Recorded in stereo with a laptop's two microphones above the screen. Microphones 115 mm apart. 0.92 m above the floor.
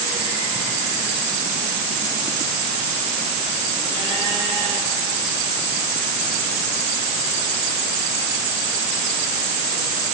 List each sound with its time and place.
Only background noise.